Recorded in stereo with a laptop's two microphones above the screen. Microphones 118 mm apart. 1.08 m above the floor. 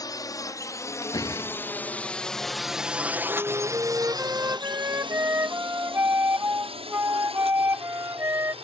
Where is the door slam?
30° left (ahead or behind).